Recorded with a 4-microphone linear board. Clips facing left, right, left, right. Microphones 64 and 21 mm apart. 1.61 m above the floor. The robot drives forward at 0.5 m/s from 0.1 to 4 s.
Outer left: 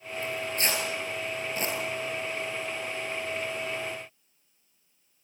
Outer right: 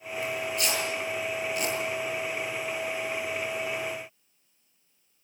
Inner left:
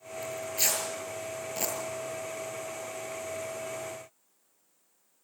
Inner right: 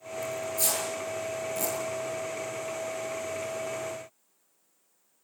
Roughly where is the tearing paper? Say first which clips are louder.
Even, even; left.